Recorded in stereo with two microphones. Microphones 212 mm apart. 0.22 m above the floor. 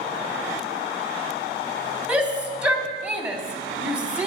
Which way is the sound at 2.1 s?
5° right (ahead or behind).